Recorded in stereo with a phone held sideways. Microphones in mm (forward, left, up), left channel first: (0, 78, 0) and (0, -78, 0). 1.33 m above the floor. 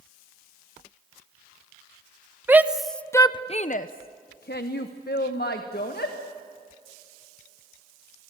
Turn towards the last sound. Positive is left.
turn(degrees=75)  # may be behind; listen again after turning